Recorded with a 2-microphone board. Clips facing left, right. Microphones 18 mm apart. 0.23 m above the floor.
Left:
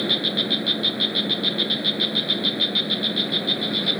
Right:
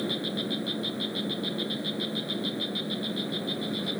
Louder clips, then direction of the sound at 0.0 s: Left 9 dB; 60° left (ahead or behind).